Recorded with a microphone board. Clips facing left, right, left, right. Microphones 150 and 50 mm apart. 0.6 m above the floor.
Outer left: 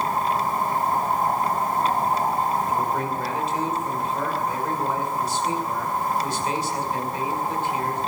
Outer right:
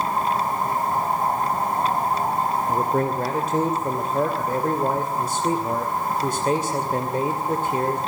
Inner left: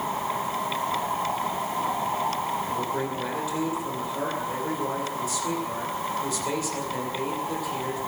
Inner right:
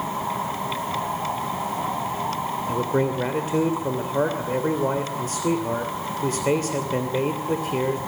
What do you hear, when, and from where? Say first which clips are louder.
2.7 s a man speaking: outer right 3 dB, inner right 5 dB; 45° right (ahead or behind), 2.5 m